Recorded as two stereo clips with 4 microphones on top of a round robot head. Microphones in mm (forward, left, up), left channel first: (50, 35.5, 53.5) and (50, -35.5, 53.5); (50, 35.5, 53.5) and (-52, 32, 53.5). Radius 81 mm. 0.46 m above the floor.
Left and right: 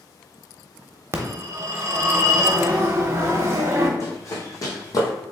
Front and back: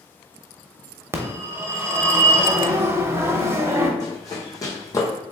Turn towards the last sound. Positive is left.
turn(degrees=60)